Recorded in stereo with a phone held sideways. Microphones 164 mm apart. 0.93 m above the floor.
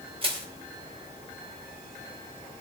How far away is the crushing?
About 2.5 m.